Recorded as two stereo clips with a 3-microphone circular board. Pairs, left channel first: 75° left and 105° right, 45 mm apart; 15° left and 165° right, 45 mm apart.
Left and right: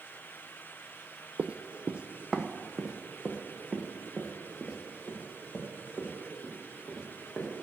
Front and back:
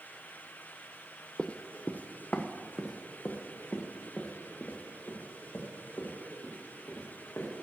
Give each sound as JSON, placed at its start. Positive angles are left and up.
{"t": 1.4, "sound": "running footsteps", "azimuth_deg": -50, "distance_m": 0.5}